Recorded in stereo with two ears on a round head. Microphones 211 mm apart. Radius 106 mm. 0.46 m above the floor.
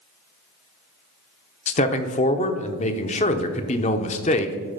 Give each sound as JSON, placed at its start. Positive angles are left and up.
{"t": 1.7, "sound": "a man speaking", "side_deg": 30, "distance_m": 0.8}